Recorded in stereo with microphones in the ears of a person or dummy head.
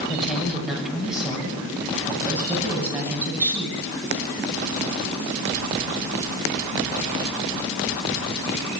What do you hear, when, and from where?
0.1 s a woman speaking: 5° right (ahead or behind), 6.5 m; by 3.8 s 10° right (ahead or behind), 10 m